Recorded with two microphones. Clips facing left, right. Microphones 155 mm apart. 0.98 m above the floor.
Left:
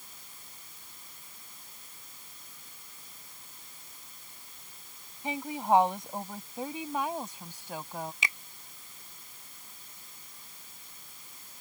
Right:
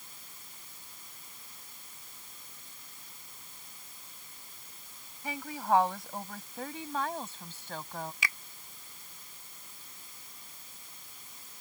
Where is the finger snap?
20° left (ahead or behind).